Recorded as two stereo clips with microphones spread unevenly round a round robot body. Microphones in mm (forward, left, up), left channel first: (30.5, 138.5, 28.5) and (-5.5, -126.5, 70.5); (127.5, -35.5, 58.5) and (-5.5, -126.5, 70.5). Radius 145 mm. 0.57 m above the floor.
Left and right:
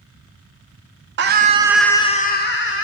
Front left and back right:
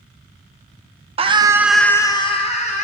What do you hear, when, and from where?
1.2 s a scream: 120° right, 0.8 m; by 2.8 s 65° left, 1.2 m